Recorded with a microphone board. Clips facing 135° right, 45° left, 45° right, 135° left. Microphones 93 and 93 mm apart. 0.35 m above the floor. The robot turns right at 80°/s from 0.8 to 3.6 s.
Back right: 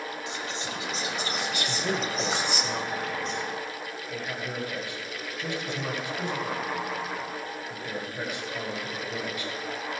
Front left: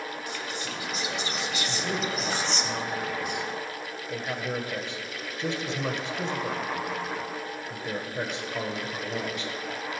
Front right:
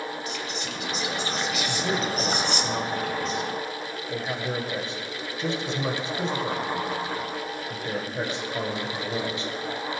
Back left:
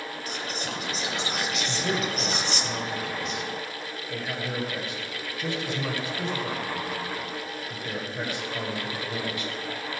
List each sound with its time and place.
0.3 s whispering: 165° left, 2 m; by 2.7 s 45° right, 2 m
1.7 s a man speaking: 155° right, 1.8 m; by 9.5 s straight ahead, 1.8 m